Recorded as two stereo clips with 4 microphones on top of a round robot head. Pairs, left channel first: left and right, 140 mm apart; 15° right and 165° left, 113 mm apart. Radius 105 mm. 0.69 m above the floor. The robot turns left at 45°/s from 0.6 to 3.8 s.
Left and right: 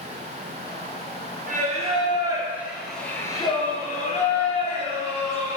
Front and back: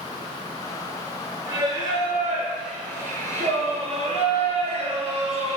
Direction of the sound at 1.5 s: 120° right.